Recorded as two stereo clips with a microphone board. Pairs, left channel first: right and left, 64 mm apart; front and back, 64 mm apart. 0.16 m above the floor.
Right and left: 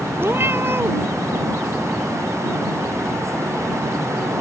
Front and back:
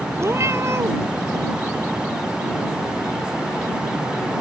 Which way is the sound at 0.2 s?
140° left.